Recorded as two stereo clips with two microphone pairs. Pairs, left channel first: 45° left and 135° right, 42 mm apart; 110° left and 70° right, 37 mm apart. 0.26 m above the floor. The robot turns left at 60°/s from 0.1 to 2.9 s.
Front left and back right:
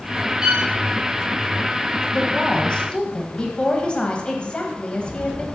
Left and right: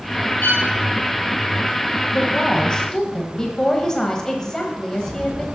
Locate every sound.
0.4 s a violin: 150° left, 1.4 m; by 0.7 s 135° left, 1.4 m
2.1 s a woman speaking: 105° left, 1.2 m; by 5.5 s 60° left, 1.2 m